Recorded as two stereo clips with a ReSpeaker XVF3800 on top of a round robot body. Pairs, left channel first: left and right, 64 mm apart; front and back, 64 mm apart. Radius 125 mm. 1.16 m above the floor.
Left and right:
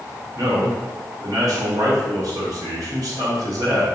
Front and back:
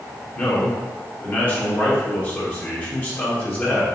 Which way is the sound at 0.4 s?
60° right.